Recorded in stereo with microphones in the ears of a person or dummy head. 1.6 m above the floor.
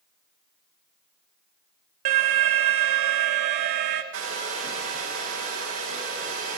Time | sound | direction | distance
2.0 | an alarm | 35° right (ahead or behind) | 0.5 m
4.1 | a hair dryer | 65° right (ahead or behind) | 1.7 m